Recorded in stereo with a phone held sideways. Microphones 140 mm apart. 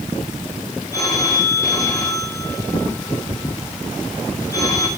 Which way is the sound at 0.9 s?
25° left (ahead or behind).